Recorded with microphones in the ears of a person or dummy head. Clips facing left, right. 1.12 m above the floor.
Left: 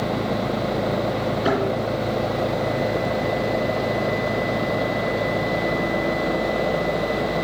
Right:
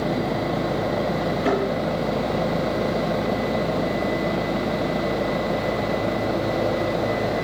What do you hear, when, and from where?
1.4 s a thud: 5° left (ahead or behind), 3 m